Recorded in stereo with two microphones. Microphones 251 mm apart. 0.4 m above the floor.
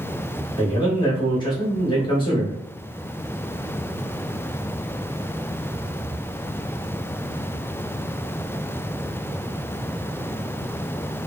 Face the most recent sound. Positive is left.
turn(degrees=20)  # may be behind; listen again after turning